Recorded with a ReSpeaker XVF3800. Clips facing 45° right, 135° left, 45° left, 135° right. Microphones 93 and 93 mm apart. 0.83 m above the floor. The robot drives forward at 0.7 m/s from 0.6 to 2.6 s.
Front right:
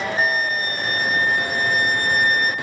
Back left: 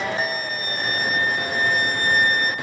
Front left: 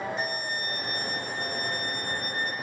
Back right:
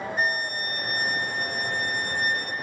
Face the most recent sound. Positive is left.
turn(degrees=-130)